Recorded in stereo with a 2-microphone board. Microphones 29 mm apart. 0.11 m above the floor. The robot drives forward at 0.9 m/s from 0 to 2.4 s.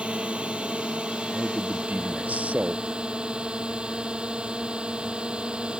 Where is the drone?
40° right (ahead or behind); by 5.8 s 35° right (ahead or behind).